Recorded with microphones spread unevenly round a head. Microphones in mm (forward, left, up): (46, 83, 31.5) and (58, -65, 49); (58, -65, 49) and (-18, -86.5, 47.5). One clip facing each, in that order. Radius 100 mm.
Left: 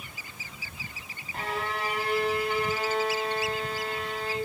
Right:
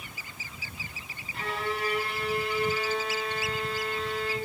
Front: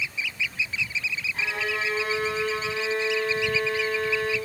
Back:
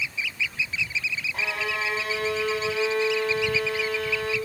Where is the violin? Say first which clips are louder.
Even, even; 150° left, 7.5 m.